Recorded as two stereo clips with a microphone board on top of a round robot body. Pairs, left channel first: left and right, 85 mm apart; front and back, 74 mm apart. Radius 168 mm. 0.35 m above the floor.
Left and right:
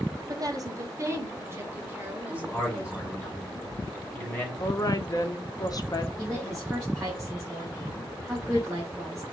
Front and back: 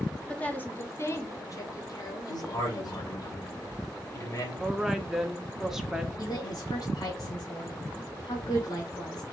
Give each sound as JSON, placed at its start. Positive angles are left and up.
{"t": 0.3, "sound": "a woman speaking", "azimuth_deg": -70, "distance_m": 1.4}
{"t": 2.3, "sound": "a man speaking", "azimuth_deg": 20, "distance_m": 2.5}
{"t": 4.6, "sound": "a woman speaking", "azimuth_deg": 95, "distance_m": 1.0}
{"t": 6.2, "sound": "a woman speaking", "azimuth_deg": 0, "distance_m": 2.5}